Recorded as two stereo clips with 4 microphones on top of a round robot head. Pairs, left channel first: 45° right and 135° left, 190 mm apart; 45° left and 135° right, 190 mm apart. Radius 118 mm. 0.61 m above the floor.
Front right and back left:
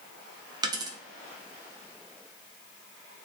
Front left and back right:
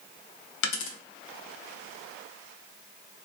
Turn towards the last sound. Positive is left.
turn(degrees=65)